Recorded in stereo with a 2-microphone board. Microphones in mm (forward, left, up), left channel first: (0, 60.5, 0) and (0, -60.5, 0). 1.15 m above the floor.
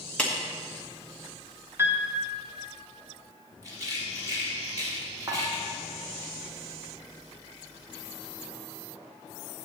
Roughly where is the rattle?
Right.